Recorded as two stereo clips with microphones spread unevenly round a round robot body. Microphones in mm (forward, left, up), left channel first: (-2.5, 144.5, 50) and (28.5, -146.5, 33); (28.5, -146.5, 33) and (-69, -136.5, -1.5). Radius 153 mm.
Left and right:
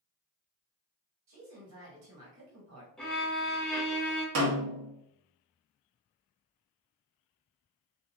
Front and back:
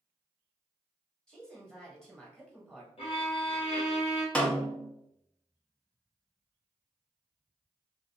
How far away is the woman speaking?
About 1.6 m.